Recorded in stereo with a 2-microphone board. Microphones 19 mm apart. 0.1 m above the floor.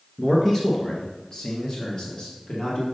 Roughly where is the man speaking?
Left.